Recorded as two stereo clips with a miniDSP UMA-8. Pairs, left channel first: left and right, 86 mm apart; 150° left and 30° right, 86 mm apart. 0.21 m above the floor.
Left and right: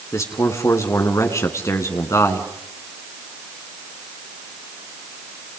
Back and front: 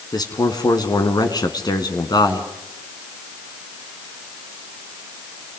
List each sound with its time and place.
0.1 s a man speaking: 135° left, 2.5 m